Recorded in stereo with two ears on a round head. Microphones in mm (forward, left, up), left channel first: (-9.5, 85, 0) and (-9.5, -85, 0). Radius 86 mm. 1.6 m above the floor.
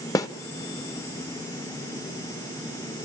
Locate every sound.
0.1 s a snare drum: 15° left (ahead or behind), 0.8 m